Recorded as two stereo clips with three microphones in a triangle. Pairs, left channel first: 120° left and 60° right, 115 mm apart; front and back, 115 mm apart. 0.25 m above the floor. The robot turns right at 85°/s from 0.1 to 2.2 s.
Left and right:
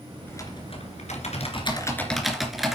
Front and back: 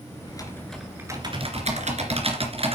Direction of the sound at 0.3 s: 50° left.